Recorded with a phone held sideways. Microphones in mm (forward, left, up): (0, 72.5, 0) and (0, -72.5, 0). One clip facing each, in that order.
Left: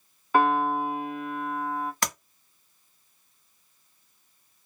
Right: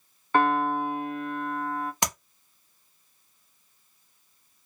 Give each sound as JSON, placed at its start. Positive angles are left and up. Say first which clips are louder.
{"t": 0.3, "sound": "a piano", "louder": "left 1 dB", "side_deg": 5, "distance_m": 0.6}
{"t": 2.0, "sound": "tapping", "louder": "right 1 dB", "side_deg": -20, "distance_m": 1.0}